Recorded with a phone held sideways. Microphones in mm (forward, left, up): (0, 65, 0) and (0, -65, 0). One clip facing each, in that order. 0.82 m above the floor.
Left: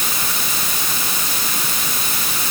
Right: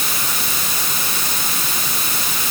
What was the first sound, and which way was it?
Only background noise.